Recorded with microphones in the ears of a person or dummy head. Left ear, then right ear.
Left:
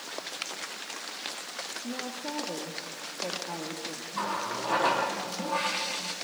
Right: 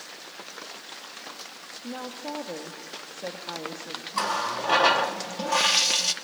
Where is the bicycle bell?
I don't hear a bicycle bell.